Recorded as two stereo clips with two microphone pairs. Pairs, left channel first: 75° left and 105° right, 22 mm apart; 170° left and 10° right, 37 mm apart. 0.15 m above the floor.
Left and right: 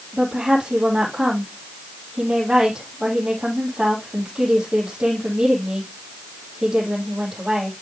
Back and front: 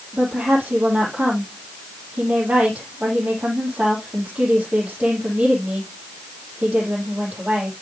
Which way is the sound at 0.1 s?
55° right.